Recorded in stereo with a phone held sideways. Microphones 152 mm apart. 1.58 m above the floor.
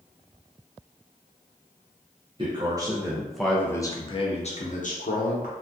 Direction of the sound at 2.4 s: 35° right (ahead or behind).